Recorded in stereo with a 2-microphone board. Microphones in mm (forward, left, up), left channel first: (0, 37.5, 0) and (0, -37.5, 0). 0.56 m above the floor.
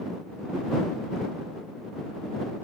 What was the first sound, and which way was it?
Only background noise.